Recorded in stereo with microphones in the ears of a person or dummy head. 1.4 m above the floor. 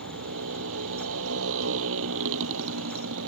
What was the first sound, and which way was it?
A motorcycle, 75° right (ahead or behind).